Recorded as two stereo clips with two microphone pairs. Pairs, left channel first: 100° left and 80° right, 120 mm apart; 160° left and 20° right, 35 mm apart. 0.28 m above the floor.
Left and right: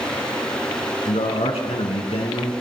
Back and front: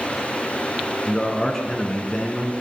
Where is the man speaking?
85° left, 3.5 m.